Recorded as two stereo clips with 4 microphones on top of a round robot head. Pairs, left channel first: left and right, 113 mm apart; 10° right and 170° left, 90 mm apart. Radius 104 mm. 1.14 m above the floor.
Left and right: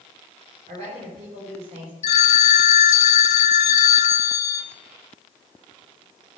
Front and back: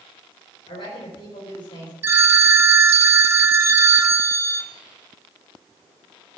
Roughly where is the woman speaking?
Ahead right.